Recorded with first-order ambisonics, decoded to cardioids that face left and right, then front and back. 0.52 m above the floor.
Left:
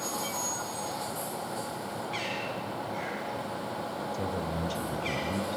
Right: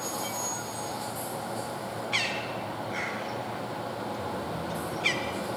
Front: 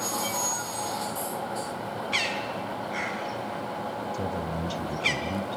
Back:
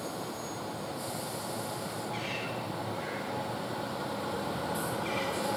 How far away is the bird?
About 3 m.